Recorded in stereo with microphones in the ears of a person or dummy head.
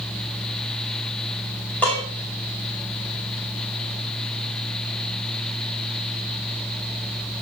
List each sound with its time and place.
1.8 s dishes clattering: 5° left (ahead or behind), 5.5 m